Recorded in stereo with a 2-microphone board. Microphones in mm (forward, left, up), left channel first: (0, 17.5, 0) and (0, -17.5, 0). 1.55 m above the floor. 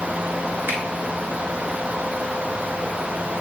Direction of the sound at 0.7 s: 80° right.